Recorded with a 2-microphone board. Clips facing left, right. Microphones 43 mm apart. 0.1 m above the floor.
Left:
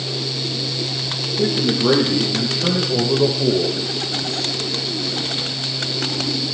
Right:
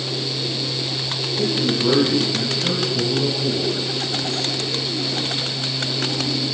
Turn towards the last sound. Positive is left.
turn(degrees=55)  # may be behind; listen again after turning